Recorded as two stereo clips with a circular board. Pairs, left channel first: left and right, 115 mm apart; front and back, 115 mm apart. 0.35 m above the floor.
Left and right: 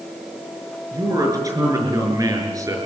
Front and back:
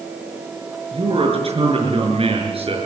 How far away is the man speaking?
About 6.5 m.